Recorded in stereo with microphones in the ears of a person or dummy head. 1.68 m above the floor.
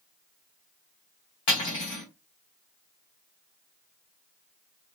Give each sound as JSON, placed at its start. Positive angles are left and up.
{"t": 1.5, "sound": "cutlery clinking", "side_deg": 20, "distance_m": 0.8}